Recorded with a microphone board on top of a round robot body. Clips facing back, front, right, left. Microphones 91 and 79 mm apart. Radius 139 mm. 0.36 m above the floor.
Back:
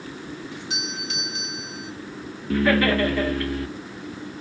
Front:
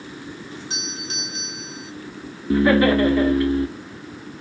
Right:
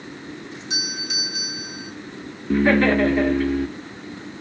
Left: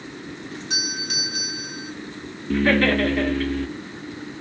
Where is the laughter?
35° right, 1.1 m.